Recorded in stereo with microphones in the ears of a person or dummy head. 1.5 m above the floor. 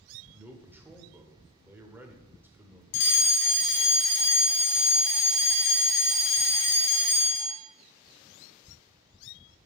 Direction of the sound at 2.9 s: 60° left (ahead or behind).